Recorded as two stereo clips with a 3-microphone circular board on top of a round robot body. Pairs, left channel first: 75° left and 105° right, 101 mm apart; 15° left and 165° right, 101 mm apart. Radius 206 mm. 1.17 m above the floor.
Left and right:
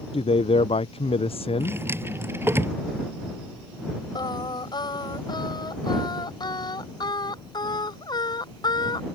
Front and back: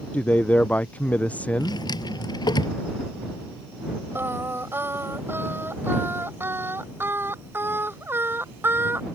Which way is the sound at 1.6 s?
35° right.